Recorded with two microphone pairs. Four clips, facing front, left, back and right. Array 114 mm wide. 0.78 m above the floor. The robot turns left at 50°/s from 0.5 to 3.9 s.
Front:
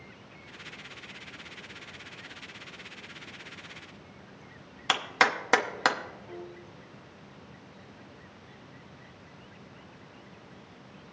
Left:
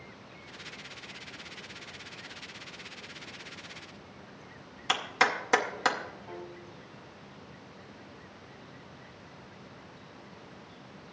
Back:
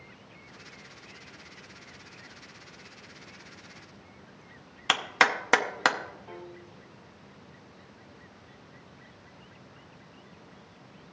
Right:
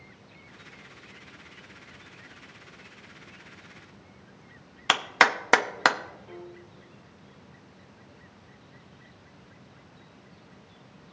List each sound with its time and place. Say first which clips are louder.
4.9 s a clap: right 5 dB, back 1 dB; 100° right, 0.7 m
6.3 s a piano: left 1 dB, front 1 dB; 140° left, 1.0 m